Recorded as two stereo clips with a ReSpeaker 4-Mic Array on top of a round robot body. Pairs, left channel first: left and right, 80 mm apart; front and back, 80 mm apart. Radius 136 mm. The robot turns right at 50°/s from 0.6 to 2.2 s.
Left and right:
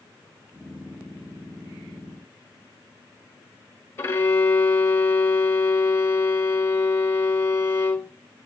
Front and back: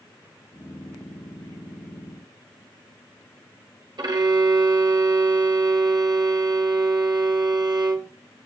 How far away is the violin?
About 1.1 m.